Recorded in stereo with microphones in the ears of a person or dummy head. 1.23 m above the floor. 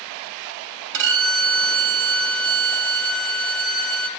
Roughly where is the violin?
Right.